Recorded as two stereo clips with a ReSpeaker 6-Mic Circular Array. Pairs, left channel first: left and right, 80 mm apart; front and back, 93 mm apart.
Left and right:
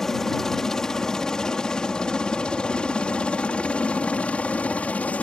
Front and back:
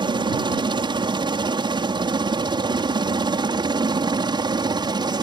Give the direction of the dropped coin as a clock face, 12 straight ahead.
I don't hear a dropped coin.